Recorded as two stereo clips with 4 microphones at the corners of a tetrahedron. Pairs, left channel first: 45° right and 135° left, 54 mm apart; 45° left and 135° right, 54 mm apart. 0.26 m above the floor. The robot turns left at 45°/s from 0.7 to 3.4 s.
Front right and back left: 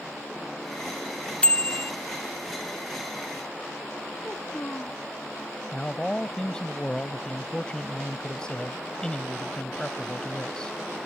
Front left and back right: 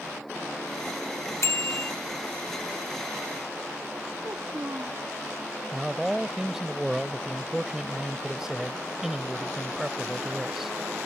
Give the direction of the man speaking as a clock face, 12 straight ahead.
2 o'clock.